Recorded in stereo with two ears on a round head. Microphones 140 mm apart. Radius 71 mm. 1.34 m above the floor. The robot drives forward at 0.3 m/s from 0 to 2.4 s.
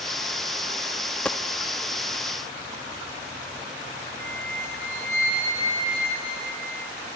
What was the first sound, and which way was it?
A dropped coin, 10° left (ahead or behind).